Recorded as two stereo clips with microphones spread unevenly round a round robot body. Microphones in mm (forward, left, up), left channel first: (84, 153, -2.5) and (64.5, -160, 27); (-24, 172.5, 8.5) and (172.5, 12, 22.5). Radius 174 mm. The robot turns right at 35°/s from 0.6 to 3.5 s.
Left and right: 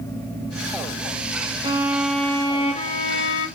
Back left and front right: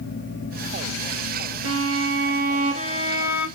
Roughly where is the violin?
Ahead.